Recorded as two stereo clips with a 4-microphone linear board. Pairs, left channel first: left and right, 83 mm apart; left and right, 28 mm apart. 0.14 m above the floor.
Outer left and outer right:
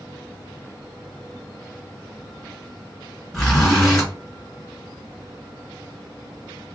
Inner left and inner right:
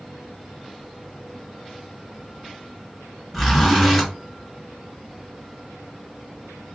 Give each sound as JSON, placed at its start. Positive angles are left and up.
{"t": 3.3, "sound": "a zipper", "side_deg": 0, "distance_m": 1.8}